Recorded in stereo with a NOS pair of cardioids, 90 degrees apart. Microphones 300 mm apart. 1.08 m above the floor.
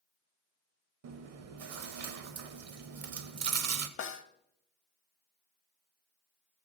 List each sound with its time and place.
1.0 s chewing: 55° right, 0.8 m
4.0 s a snare drum: 45° left, 0.9 m